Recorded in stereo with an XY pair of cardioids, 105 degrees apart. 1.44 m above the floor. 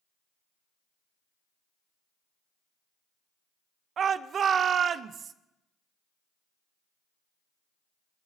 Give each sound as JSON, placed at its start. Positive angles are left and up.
{"t": 4.0, "sound": "a shout", "azimuth_deg": -55, "distance_m": 0.8}